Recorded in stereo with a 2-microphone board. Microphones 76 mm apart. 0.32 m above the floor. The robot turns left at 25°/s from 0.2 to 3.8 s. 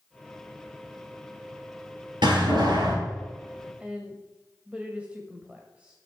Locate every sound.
2.2 s a door slam: 85° right, 4.5 m; by 3.0 s 70° right (ahead or behind), 4.5 m
3.8 s a woman speaking: 15° right (ahead or behind), 1.4 m